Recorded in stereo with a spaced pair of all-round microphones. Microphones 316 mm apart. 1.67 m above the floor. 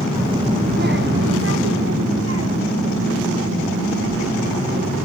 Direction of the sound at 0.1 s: 10° right (ahead or behind).